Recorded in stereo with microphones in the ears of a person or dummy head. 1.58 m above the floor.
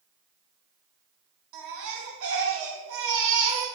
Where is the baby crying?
75° right (ahead or behind), 1.7 m.